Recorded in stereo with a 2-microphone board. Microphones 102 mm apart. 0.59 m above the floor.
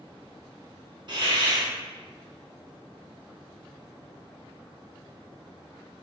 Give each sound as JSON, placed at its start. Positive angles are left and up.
{"t": 1.1, "sound": "a hiss", "side_deg": -45, "distance_m": 1.6}